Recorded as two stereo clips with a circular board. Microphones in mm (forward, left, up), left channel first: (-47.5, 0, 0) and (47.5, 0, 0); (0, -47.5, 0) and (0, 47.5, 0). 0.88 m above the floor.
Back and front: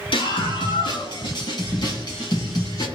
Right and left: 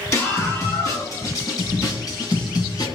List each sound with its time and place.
0.1 s a scream: 150° right, 7 m; by 2.9 s 130° right, 8.5 m